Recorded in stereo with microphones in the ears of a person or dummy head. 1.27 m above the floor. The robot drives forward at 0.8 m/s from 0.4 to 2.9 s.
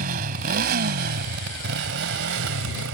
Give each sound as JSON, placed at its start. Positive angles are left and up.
{"t": 0.0, "sound": "a motorcycle", "side_deg": -55}